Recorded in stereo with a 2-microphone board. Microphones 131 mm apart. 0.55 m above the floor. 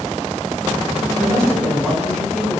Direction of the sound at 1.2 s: 5° left (ahead or behind).